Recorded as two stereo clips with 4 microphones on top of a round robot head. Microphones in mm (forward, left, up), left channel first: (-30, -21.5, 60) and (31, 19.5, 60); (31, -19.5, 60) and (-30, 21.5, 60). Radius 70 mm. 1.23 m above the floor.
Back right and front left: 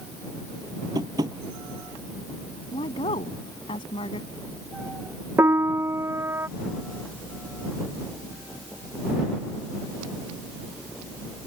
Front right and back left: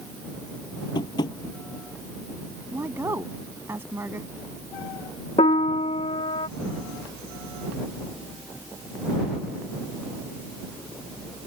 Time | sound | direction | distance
0.9 | tapping | 5° right | ?
2.7 | a woman speaking | 150° right | ?
5.4 | a piano | 25° right | ?